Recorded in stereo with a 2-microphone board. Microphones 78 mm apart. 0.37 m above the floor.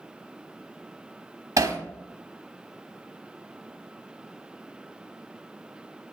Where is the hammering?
45° right (ahead or behind), 1.0 m.